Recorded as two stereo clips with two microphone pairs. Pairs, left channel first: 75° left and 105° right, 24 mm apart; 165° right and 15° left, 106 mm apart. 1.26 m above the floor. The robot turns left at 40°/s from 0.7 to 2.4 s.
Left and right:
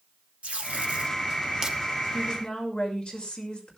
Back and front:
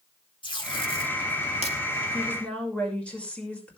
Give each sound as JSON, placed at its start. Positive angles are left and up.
{"t": 0.4, "sound": "tape being pulled", "azimuth_deg": -125, "distance_m": 3.0}
{"t": 2.1, "sound": "a woman speaking", "azimuth_deg": 125, "distance_m": 6.0}